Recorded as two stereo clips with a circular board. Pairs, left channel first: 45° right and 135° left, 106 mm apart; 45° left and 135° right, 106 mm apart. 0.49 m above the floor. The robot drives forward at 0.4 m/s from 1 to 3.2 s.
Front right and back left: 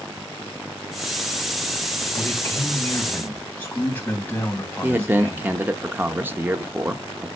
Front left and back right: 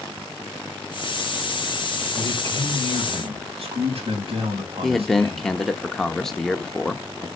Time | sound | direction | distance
2.1 | a man speaking | 110° right | 3 m
4.8 | a man speaking | 125° left | 0.7 m